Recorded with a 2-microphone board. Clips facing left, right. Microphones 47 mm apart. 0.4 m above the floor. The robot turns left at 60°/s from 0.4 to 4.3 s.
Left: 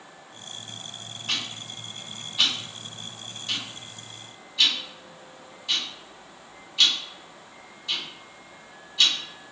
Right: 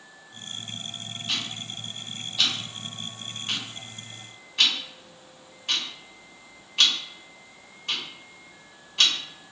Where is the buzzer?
I don't hear a buzzer.